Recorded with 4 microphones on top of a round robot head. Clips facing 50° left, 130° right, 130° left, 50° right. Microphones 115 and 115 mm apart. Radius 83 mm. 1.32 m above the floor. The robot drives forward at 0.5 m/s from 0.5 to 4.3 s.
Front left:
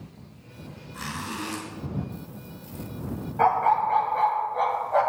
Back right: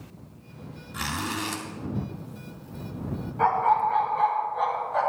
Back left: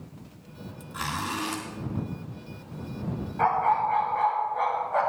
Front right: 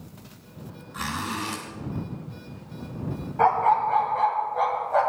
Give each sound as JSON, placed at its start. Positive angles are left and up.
{"t": 0.9, "sound": "a zipper", "azimuth_deg": -155, "distance_m": 1.8}
{"t": 3.4, "sound": "a dog barking", "azimuth_deg": 10, "distance_m": 2.5}